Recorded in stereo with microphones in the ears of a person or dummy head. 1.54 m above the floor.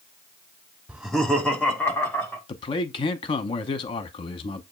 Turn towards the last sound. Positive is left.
turn(degrees=30)  # may be behind; listen again after turning